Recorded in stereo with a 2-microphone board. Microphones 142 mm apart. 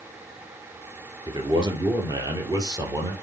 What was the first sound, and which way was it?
A man speaking, 30° right (ahead or behind).